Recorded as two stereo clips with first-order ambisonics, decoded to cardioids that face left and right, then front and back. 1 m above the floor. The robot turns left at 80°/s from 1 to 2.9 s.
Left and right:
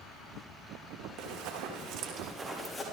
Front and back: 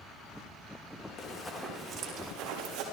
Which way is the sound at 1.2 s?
60° right.